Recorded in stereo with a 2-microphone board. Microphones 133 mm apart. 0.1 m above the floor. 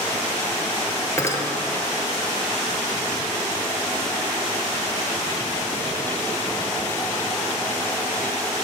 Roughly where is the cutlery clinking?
Left.